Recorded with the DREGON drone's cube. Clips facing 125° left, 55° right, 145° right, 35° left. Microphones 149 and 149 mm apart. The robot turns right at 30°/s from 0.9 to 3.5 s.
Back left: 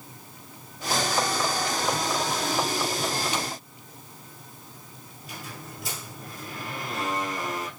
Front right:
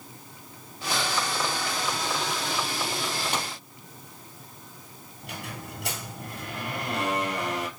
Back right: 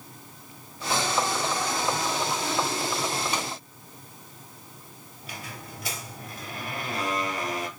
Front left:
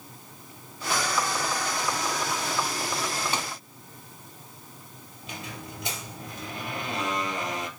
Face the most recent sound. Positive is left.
turn(degrees=-35)